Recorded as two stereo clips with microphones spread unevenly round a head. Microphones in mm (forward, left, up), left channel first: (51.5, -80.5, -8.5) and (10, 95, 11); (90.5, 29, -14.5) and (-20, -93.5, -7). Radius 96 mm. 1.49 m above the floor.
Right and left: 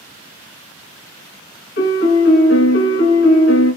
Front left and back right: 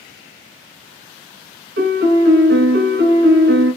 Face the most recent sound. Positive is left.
turn(degrees=-115)